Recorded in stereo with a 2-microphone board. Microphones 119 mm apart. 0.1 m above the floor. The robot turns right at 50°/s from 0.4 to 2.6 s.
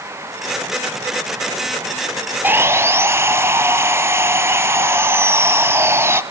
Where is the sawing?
15° right (ahead or behind), 0.9 m; by 6.2 s 20° right (ahead or behind), 0.9 m.